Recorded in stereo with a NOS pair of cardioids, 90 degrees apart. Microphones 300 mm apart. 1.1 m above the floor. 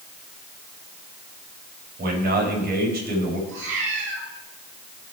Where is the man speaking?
35° right, 4.5 m.